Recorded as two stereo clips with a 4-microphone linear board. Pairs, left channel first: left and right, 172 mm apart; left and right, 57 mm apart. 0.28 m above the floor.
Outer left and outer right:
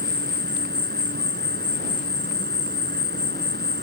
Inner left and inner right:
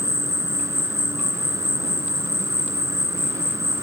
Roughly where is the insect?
Right.